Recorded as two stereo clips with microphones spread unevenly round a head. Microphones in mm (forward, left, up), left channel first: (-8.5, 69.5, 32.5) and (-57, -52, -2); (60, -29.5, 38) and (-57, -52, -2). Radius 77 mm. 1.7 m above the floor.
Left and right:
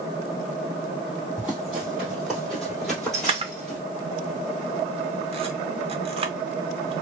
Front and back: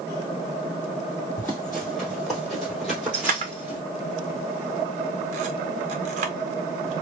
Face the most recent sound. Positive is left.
turn(degrees=-155)